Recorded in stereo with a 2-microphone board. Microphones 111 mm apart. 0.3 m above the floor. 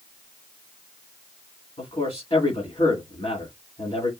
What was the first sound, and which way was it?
A man speaking, 65° left (ahead or behind).